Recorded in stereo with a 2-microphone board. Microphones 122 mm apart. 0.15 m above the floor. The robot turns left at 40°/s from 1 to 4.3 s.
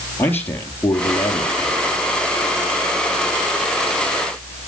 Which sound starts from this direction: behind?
A man speaking, at 0.2 s.